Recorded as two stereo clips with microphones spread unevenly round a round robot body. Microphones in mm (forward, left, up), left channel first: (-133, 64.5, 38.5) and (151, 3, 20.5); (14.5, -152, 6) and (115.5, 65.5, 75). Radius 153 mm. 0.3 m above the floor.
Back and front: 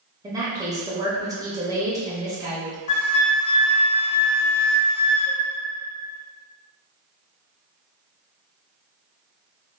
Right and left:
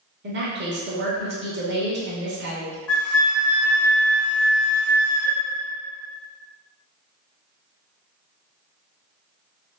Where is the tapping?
No tapping in this recording.